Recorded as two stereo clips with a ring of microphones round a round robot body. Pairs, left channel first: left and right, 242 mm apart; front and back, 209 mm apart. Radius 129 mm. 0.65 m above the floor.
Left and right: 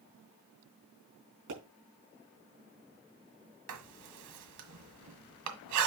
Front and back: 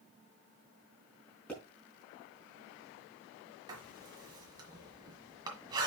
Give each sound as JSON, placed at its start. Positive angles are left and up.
{"t": 1.5, "sound": "a pop", "azimuth_deg": -85, "distance_m": 4.5}
{"t": 3.7, "sound": "writing", "azimuth_deg": -105, "distance_m": 1.7}